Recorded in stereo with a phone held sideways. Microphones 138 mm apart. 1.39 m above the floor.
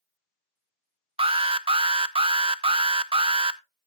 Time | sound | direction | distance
1.2 | an alarm | 40° right (ahead or behind) | 0.6 m